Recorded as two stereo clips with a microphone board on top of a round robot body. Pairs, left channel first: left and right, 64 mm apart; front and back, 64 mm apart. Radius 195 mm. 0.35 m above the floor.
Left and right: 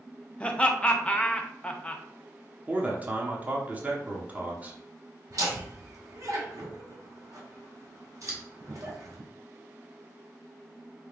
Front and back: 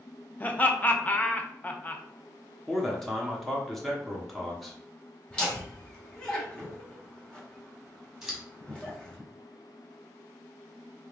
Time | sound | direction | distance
0.4 | laughter | 35° left | 0.9 m
2.7 | a man speaking | 85° right | 1.2 m
5.3 | laughter | 75° right | 2 m
8.2 | scissors | 95° right | 2 m